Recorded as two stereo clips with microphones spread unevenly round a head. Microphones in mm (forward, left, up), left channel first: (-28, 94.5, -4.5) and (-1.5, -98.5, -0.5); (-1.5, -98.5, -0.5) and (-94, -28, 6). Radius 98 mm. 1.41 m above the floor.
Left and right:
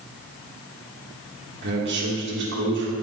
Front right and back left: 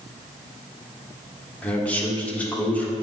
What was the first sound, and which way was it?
A man speaking, 115° right.